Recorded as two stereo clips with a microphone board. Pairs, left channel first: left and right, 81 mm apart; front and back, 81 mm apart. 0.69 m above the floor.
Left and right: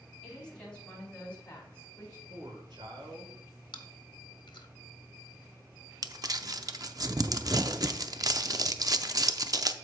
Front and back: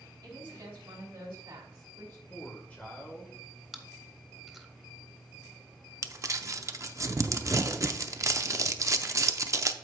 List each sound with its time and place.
0.2 s a woman speaking: 170° left, 4.5 m; by 2.2 s 155° left, 4.5 m
2.3 s a man speaking: 70° right, 2 m
3.7 s chewing: 95° left, 1.1 m
6.0 s crumpling: 130° right, 0.5 m